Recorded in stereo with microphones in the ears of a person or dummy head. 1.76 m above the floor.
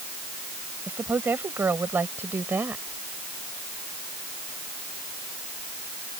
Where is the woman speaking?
15° right (ahead or behind); by 2.9 s 10° right (ahead or behind).